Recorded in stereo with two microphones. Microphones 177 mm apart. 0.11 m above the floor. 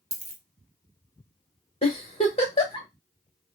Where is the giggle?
35° left (ahead or behind), 1.2 m.